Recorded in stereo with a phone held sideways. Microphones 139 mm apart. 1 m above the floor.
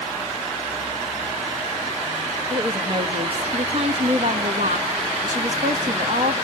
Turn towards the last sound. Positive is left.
turn(degrees=-60)  # may be behind; listen again after turning